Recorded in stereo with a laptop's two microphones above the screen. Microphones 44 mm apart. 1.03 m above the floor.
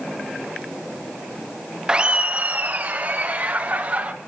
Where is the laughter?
20° right (ahead or behind), 0.6 m; by 4.1 s 45° right (ahead or behind), 1.8 m.